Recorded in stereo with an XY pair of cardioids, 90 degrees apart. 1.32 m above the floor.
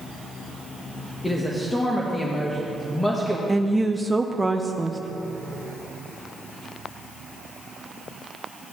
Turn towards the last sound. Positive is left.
turn(degrees=-10)